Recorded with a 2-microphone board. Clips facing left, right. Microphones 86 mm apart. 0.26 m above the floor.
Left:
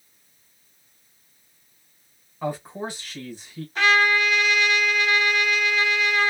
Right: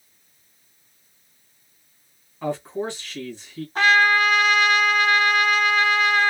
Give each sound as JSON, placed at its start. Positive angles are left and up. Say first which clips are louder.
{"t": 2.4, "sound": "a man speaking", "louder": "right 3 dB", "side_deg": 10, "distance_m": 1.8}
{"t": 3.8, "sound": "a trumpet", "louder": "right 2 dB", "side_deg": -35, "distance_m": 1.8}